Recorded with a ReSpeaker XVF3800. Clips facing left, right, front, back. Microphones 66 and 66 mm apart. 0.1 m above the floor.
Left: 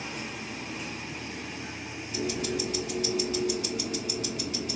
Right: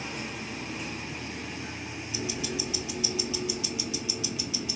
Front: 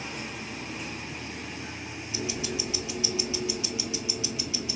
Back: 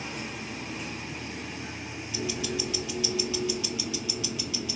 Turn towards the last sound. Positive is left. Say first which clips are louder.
# left 4 dB, back 1 dB
turn(degrees=65)